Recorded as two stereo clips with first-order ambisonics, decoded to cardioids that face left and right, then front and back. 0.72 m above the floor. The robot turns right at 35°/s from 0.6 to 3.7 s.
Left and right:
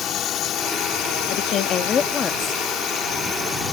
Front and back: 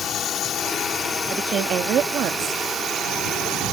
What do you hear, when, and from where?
0.0 s a drone: 50° left; by 3.7 s 155° left
1.3 s a woman speaking: 115° left; by 2.6 s 165° left